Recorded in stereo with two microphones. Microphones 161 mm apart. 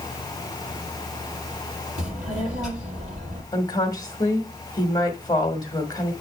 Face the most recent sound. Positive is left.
turn(degrees=25)  # may be behind; listen again after turning